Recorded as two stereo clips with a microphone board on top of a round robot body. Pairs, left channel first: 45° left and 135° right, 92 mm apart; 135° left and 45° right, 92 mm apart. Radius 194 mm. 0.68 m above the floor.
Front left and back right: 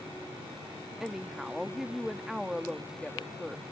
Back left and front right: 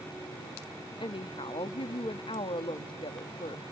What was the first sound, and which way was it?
A woman speaking, 140° left.